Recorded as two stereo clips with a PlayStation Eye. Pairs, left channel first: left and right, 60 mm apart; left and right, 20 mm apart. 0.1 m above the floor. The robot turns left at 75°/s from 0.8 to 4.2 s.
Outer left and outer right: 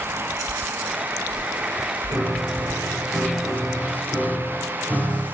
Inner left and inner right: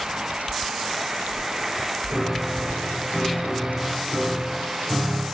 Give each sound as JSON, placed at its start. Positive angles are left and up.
{"t": 2.1, "sound": "a piano", "azimuth_deg": -50, "distance_m": 2.5}